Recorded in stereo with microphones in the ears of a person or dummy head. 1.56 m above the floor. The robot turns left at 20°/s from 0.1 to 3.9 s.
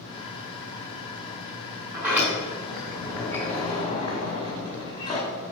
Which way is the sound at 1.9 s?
175° right.